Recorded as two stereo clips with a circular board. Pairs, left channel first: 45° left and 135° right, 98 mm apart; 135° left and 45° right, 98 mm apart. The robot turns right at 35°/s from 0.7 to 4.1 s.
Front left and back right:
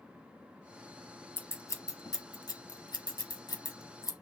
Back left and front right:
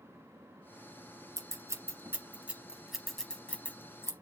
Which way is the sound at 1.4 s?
15° right.